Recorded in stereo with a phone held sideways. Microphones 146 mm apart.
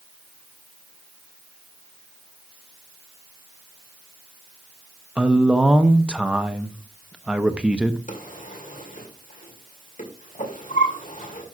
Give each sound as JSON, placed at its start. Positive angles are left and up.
{"t": 5.2, "sound": "a man speaking", "side_deg": -5, "distance_m": 0.7}
{"t": 8.1, "sound": "a drawer", "side_deg": 65, "distance_m": 1.9}